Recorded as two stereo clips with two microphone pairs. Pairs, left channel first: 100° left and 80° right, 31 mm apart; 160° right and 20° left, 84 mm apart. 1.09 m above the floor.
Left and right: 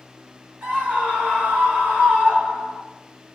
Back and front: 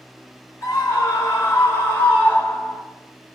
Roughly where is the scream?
Right.